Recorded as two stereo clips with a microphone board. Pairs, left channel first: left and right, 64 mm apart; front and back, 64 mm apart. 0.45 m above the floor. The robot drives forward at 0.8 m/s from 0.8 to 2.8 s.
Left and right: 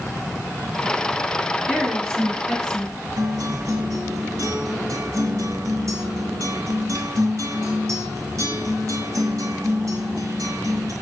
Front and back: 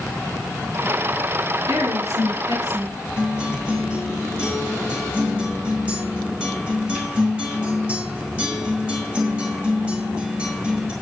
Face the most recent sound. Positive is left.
turn(degrees=-110)